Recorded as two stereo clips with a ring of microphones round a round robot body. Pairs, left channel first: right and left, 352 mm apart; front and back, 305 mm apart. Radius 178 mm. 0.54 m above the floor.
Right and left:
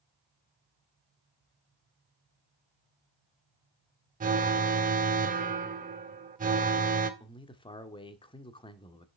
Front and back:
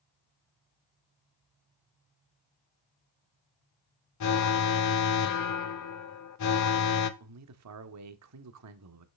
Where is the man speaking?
165° right, 1.1 m.